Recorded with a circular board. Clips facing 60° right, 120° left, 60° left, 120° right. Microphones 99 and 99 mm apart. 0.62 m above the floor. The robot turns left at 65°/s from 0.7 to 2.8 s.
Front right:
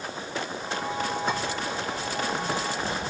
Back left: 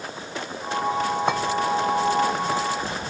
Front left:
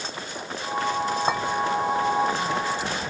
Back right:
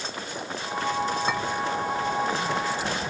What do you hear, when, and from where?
1.3 s a clink: 105° left, 1.3 m; by 1.4 s 100° left, 1.3 m